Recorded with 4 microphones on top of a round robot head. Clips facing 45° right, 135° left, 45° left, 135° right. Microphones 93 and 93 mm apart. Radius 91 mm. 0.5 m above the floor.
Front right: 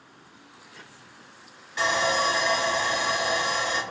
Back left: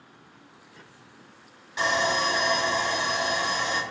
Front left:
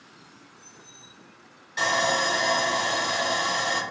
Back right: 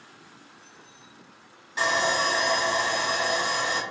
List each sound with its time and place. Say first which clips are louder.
1.8 s sawing: front right 1 dB, even; 165° right, 1.8 m